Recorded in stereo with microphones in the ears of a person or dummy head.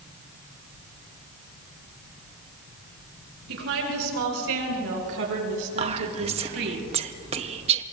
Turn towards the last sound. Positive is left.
turn(degrees=-25)  # may be behind; listen again after turning